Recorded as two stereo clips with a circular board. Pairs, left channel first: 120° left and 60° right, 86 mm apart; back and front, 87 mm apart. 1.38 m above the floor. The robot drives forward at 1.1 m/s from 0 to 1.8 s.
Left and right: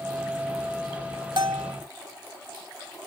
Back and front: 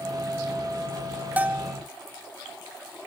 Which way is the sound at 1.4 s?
70° right.